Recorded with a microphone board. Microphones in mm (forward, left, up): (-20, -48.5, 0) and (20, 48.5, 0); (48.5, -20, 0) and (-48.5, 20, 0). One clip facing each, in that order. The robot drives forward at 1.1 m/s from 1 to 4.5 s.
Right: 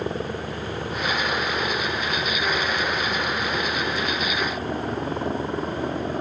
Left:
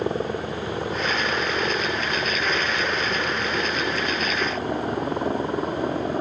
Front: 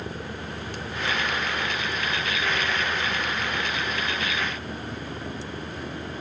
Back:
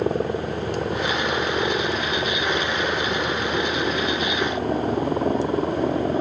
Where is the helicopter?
140° left; by 6.2 s 145° left.